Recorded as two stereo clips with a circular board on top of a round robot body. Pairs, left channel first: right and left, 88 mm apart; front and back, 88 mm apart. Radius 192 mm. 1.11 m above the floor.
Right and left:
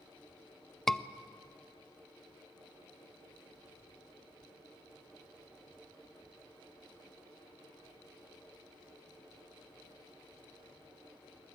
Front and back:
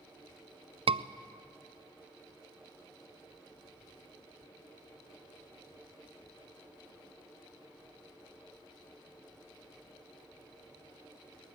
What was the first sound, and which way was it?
A scream, 175° right.